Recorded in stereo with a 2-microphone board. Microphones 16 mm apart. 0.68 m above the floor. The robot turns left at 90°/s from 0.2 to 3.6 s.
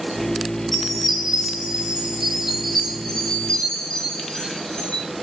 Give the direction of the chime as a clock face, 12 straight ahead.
12 o'clock.